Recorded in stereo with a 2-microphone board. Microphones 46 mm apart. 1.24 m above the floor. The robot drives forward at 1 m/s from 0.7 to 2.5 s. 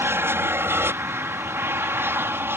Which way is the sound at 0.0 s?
60° right (ahead or behind).